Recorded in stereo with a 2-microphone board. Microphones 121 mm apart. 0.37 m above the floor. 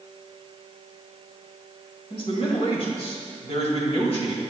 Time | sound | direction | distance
2.1 | a man speaking | 50° left (ahead or behind) | 1.9 m